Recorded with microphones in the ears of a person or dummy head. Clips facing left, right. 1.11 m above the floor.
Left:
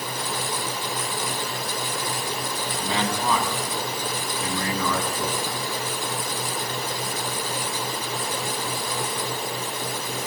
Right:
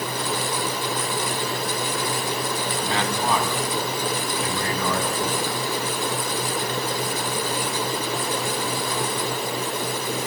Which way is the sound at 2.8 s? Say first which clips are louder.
Left 1 dB; 80° left.